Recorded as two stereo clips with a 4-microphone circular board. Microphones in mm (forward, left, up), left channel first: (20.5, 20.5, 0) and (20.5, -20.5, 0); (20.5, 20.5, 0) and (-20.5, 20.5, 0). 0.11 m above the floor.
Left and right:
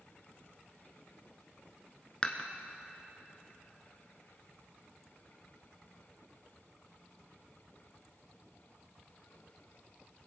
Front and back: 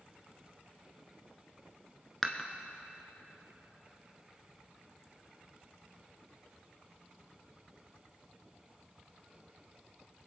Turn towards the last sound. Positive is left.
turn(degrees=80)